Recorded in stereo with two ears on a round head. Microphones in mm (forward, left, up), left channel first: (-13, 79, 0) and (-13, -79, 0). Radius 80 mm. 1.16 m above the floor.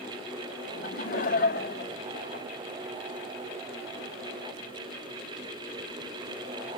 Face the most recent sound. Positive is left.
turn(degrees=55)  # may be behind; listen again after turning